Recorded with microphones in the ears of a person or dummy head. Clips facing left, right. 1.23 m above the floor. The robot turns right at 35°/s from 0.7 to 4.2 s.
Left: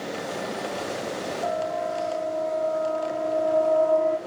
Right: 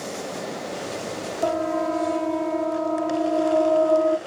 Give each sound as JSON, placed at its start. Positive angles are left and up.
{"t": 1.4, "sound": "a siren", "side_deg": -70, "distance_m": 2.5}